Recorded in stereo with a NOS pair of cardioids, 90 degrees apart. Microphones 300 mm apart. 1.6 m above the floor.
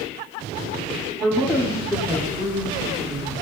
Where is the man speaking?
5° right, 4.5 m; by 3.3 s 30° right, 4.5 m.